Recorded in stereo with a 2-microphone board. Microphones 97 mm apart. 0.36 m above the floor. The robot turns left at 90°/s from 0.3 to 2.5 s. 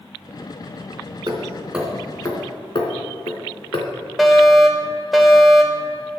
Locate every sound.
1.3 s hammering: 50° right (ahead or behind), 3 m; by 3.9 s 55° left (ahead or behind), 3 m
4.2 s a fire alarm: centre (ahead or behind), 2 m